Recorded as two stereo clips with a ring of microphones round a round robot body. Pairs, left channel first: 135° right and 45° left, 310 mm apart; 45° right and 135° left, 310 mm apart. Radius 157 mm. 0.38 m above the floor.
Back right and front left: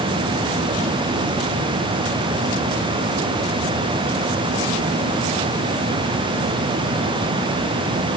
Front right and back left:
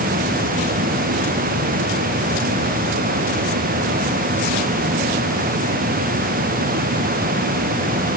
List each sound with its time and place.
Only background noise.